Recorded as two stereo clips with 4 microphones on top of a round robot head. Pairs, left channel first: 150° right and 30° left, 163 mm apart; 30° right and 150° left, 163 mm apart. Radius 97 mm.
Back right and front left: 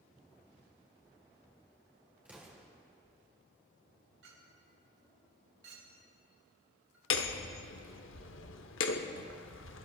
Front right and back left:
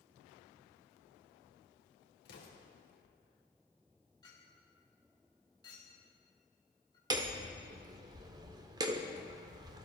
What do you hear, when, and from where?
2.2 s an explosion: 50° right, 2.5 m
4.2 s a clink: 35° left, 4 m
7.1 s hammering: 145° right, 0.7 m